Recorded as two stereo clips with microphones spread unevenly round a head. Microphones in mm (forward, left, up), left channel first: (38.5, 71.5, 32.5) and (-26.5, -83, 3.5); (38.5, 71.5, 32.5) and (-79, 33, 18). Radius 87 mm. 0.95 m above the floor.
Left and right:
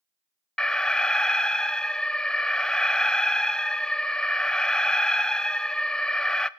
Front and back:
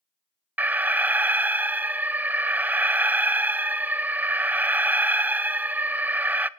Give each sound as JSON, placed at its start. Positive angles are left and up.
{"t": 0.6, "sound": "an alarm", "azimuth_deg": 170, "distance_m": 0.7}